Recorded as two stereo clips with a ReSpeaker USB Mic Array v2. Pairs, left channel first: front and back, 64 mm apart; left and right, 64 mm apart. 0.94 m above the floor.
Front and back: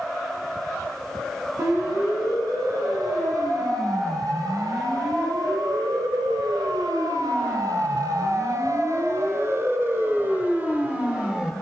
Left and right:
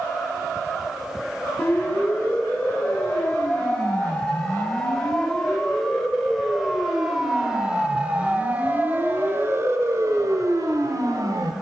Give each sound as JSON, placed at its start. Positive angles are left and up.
{"t": 1.6, "sound": "a siren", "azimuth_deg": 155, "distance_m": 8.0}